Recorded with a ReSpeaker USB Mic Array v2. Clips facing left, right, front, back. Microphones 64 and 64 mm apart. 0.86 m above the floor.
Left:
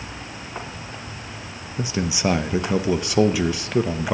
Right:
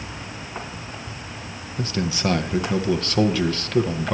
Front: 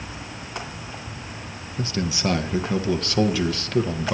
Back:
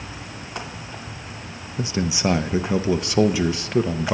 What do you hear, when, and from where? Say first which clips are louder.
1.8 s a man speaking: left 1 dB, back 2 dB; 140° left, 0.7 m